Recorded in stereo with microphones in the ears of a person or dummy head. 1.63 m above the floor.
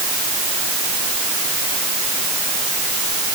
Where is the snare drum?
No snare drum in this recording.